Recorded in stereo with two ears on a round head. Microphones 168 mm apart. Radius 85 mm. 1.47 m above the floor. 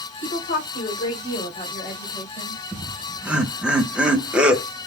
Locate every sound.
0.2 s a woman speaking: 60° left (ahead or behind), 1.6 m; by 2.6 s 15° left (ahead or behind), 1.8 m
2.7 s laughter: 5° right (ahead or behind), 1.1 m